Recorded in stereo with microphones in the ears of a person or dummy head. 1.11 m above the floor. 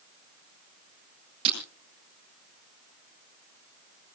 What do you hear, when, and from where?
1.4 s breaking glass: 35° right (ahead or behind), 9 m